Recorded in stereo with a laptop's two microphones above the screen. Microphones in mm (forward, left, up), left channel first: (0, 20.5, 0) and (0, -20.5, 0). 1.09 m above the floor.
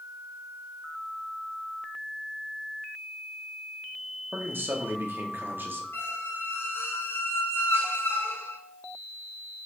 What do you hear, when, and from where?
4.3 s a man speaking: 55° right (ahead or behind), 0.9 m
5.9 s a squeak: 70° left (ahead or behind), 0.6 m